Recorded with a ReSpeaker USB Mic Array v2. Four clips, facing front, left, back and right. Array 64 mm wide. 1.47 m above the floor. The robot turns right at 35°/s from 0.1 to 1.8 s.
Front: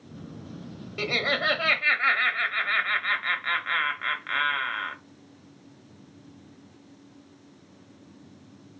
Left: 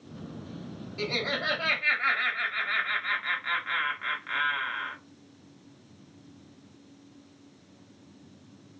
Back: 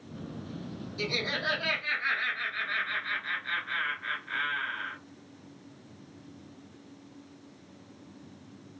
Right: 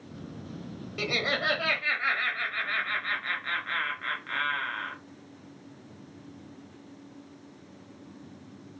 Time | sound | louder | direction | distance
1.0 | laughter | right 2 dB, front 6 dB | 25° right | 0.7 m